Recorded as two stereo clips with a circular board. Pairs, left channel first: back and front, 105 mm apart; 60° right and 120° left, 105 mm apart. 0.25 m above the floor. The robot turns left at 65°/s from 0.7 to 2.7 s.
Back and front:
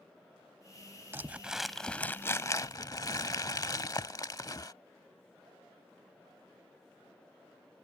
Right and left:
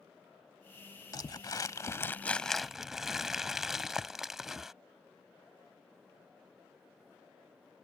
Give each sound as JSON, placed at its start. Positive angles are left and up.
{"t": 1.1, "sound": "crumpling", "azimuth_deg": -55}